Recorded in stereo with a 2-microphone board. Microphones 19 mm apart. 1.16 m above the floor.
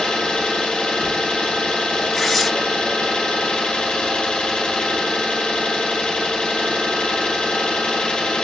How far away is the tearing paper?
About 1.3 m.